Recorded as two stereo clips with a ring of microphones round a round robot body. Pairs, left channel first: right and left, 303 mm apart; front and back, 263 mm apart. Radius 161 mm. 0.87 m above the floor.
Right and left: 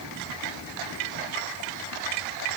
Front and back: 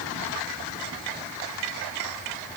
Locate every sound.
Only background noise.